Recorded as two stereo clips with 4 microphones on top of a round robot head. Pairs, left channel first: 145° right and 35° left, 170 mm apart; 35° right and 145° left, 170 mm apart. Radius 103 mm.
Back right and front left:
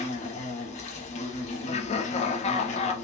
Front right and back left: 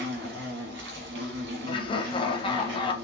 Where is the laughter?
95° right, 1.0 m.